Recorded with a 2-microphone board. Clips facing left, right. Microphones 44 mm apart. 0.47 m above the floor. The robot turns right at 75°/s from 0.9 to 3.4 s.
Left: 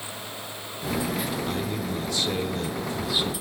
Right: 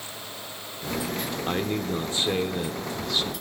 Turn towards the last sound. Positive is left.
turn(degrees=35)